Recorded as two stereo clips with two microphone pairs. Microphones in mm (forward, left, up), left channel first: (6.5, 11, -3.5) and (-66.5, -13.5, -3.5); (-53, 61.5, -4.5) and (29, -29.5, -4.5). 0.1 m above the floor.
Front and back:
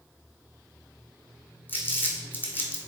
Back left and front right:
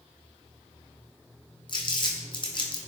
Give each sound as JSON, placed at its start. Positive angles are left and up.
{"t": 1.7, "sound": "crumpling", "azimuth_deg": 85, "distance_m": 0.8}